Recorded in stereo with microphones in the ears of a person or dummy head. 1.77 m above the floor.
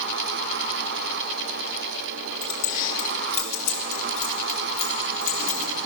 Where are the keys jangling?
45° left (ahead or behind), 1.4 m; by 5.7 s 75° left (ahead or behind), 4.5 m.